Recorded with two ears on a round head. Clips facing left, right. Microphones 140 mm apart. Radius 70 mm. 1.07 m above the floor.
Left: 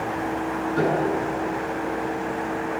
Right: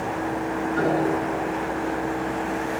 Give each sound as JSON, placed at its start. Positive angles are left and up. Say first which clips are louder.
{"t": 0.8, "sound": "a piano", "louder": "even", "side_deg": 35, "distance_m": 9.0}